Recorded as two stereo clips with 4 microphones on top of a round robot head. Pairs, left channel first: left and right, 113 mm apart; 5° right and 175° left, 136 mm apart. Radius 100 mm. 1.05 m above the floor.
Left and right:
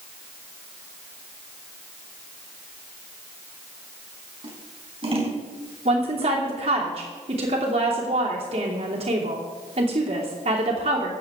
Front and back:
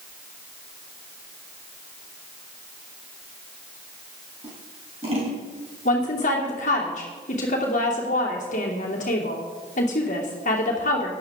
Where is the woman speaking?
45° right, 3 m.